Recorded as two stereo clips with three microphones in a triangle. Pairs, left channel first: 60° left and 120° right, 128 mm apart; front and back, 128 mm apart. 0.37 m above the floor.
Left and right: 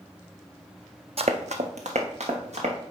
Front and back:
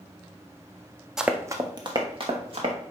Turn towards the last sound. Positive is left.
turn(degrees=-145)